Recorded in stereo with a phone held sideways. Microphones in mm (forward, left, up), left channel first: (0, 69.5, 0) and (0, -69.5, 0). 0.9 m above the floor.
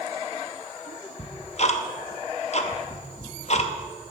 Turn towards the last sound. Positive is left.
turn(degrees=50)  # may be behind; listen again after turning